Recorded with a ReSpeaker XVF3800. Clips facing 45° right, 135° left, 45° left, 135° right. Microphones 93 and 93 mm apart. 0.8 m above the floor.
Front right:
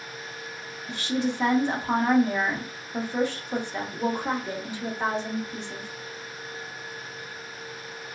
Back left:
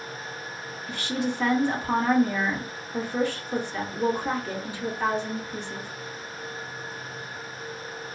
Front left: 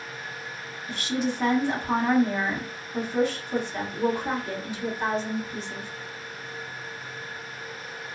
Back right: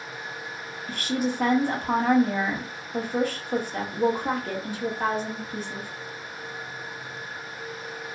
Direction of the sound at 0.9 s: 110° right.